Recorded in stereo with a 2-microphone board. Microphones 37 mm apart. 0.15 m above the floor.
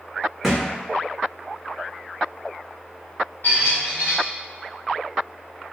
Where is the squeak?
80° left, 1.5 m.